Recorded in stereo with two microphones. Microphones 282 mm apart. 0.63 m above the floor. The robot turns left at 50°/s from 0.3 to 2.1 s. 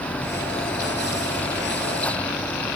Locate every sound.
Only background noise.